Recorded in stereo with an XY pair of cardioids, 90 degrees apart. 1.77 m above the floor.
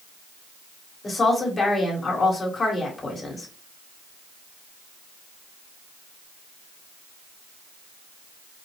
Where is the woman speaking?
35° left, 2 m.